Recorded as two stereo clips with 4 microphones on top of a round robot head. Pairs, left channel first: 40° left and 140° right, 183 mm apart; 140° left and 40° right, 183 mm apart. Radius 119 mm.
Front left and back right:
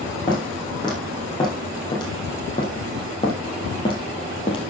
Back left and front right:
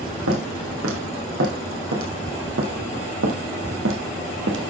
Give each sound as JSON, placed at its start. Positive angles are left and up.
{"t": 0.3, "sound": "footsteps", "azimuth_deg": -30, "distance_m": 4.0}